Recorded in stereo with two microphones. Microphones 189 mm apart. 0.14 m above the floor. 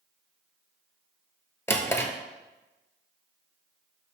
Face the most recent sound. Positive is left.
turn(degrees=15)  # may be behind; listen again after turning